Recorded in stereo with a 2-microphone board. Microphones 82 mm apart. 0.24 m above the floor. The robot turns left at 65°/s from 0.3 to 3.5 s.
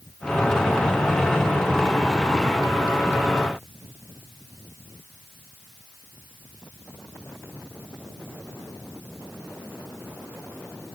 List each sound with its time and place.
Only background noise.